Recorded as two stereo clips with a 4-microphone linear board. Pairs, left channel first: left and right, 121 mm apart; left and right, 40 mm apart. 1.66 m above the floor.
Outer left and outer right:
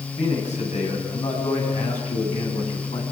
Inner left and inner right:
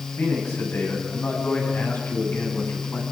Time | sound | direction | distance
0.2 | a man speaking | 70° left (ahead or behind) | 8.5 m